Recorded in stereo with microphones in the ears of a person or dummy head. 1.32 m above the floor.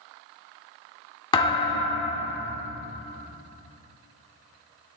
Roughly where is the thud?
Left.